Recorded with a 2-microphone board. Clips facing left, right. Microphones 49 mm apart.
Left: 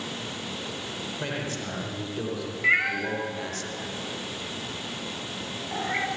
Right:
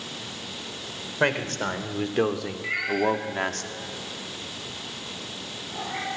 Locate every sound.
1.2 s a man speaking: 55° right (ahead or behind), 3.5 m; by 3.6 s 50° right (ahead or behind), 1.9 m
2.6 s a cat meowing: 40° left (ahead or behind), 3.5 m